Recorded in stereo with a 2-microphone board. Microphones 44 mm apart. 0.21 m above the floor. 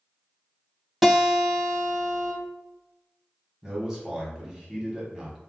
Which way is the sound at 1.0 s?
5° right (ahead or behind).